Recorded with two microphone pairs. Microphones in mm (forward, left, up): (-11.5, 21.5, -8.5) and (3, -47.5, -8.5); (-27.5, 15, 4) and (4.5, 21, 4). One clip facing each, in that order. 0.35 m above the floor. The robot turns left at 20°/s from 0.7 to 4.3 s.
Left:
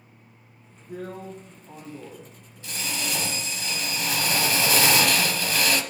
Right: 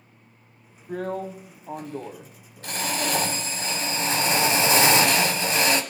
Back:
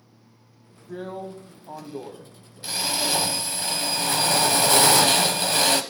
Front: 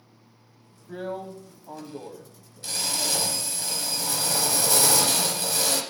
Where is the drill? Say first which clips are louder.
Right 6 dB, even; 70° right, 0.9 m; by 5.8 s 140° right, 0.9 m.